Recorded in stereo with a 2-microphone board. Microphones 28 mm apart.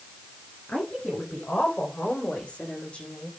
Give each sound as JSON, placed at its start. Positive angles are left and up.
{"t": 0.7, "sound": "a woman speaking", "side_deg": 65, "distance_m": 5.5}